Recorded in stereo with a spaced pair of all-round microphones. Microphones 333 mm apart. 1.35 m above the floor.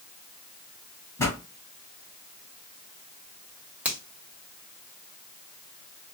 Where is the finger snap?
5° right (ahead or behind), 1.3 m.